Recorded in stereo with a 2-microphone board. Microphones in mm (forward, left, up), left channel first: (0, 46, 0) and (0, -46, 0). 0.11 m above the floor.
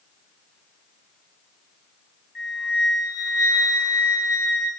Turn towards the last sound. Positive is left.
turn(degrees=-10)  # may be behind; listen again after turning